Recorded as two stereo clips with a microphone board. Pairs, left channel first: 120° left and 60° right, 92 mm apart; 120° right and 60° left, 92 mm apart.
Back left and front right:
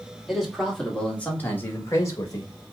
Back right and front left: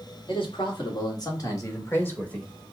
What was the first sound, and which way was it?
A man speaking, 150° right.